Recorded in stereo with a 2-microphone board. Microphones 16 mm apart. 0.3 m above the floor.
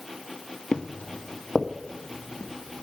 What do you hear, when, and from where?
0.7 s footsteps: 65° left (ahead or behind), 0.5 m; by 2.8 s 30° left (ahead or behind), 2.5 m